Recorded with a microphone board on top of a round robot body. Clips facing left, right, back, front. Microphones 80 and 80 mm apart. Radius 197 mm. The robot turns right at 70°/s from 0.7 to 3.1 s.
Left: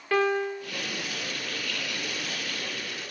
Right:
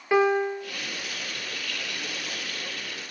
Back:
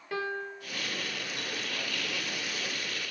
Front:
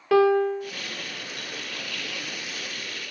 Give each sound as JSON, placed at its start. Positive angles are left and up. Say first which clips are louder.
{"t": 0.1, "sound": "a piano", "louder": "right 3 dB, front 16 dB", "azimuth_deg": -15, "distance_m": 0.5}